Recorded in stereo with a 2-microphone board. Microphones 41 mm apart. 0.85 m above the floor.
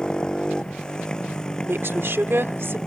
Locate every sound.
0.0 s a motorcycle: 20° left (ahead or behind); by 2.9 s 15° left (ahead or behind)
1.6 s a woman speaking: 75° right (ahead or behind)